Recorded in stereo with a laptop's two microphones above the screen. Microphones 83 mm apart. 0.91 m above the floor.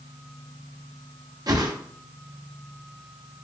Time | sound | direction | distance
1.5 | a whoosh | 50° right (ahead or behind) | 0.6 m